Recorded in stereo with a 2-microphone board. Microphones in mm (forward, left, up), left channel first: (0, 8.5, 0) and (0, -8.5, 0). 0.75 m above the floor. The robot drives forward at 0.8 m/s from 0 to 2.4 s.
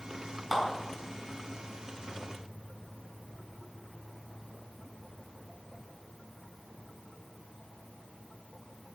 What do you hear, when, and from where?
0.5 s a clap: 20° right (ahead or behind), 4.5 m; by 0.6 s 25° right (ahead or behind), 4.5 m